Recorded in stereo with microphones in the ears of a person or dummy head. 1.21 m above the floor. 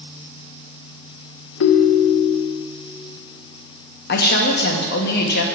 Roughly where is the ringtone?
Left.